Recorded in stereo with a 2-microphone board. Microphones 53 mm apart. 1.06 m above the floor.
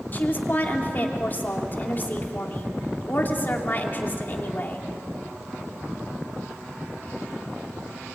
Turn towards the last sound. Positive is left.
turn(degrees=35)  # may be behind; listen again after turning